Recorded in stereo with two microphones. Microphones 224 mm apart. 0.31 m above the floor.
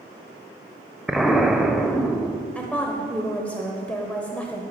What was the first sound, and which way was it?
An explosion, centre (ahead or behind).